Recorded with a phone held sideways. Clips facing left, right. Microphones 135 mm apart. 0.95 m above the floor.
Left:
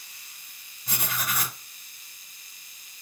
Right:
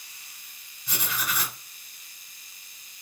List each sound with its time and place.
0.9 s writing: 50° left (ahead or behind), 1.3 m